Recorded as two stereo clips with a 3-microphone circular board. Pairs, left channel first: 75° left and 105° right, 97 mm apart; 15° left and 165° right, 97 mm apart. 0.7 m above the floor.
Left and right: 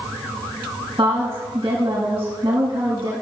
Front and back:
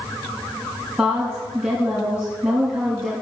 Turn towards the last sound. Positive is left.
turn(degrees=-80)